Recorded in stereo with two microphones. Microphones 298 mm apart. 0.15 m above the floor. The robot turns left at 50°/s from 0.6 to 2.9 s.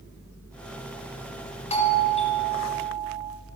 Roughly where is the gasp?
I don't hear a gasp.